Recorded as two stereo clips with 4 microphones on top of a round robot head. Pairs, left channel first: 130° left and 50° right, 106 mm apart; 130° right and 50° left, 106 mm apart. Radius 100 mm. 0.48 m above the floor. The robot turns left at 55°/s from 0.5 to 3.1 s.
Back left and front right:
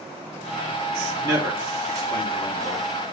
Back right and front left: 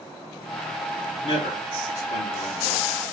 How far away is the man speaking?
About 2.5 m.